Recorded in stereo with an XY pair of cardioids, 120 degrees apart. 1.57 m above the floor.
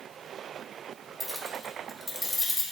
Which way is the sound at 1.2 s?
5° right.